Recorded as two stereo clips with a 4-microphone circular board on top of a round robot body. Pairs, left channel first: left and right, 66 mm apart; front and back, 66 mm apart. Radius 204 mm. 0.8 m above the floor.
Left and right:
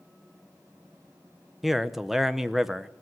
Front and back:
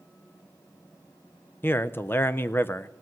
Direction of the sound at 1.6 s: 10° right.